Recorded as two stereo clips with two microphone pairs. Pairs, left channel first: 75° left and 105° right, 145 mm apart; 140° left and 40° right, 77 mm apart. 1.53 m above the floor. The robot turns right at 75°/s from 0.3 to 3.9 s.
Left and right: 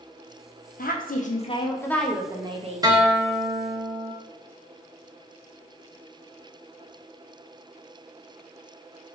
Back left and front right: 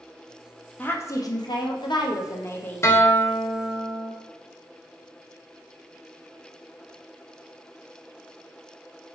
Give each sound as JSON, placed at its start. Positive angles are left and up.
{"t": 0.8, "sound": "a woman speaking", "azimuth_deg": 70, "distance_m": 0.6}
{"t": 2.8, "sound": "a guitar", "azimuth_deg": -165, "distance_m": 0.6}